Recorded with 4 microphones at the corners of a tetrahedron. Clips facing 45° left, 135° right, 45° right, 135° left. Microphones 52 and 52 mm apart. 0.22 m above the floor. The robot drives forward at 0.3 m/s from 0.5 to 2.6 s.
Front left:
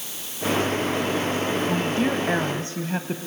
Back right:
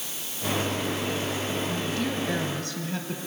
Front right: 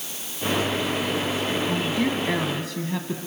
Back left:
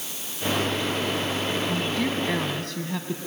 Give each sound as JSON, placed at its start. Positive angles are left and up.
{"t": 1.7, "sound": "a woman speaking", "azimuth_deg": 25, "distance_m": 1.3}